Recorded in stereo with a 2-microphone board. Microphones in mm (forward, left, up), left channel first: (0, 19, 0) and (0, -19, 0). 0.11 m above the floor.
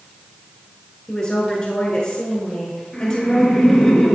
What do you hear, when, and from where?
1.1 s a woman speaking: 25° left (ahead or behind), 1.2 m
2.9 s laughter: 10° left (ahead or behind), 1.7 m